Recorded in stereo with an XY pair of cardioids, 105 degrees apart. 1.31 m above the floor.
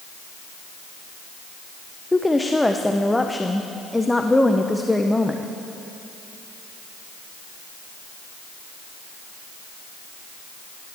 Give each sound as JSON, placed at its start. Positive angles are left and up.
{"t": 2.1, "sound": "a woman speaking", "azimuth_deg": 10, "distance_m": 0.5}